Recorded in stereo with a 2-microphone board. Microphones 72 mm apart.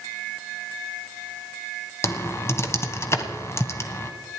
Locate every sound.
2.0 s typing on a keyboard: 40° left (ahead or behind), 1.3 m